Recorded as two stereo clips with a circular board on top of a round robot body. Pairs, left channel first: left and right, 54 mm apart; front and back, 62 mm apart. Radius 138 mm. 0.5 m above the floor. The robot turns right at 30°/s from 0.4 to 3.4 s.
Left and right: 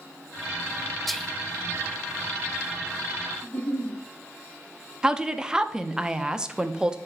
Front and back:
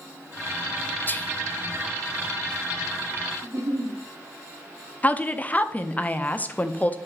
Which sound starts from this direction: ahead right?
A woman speaking, at 5.0 s.